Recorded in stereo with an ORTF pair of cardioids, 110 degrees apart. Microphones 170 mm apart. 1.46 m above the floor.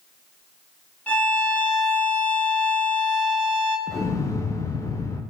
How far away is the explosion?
About 0.6 m.